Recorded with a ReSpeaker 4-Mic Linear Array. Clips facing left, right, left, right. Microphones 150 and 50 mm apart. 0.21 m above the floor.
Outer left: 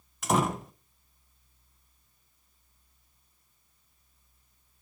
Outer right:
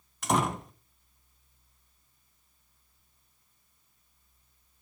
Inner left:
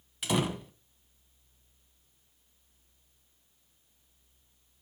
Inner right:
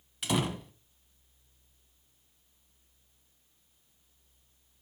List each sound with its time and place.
0.2 s a door slam: centre (ahead or behind), 0.9 m